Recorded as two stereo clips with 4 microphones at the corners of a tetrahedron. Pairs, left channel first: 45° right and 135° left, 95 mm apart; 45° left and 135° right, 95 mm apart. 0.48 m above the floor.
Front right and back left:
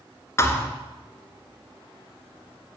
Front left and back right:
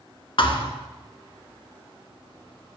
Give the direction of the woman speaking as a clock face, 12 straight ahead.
I don't hear a woman speaking.